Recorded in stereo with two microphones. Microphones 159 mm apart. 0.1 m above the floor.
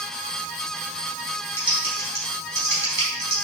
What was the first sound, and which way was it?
Typing on a keyboard, 25° left (ahead or behind).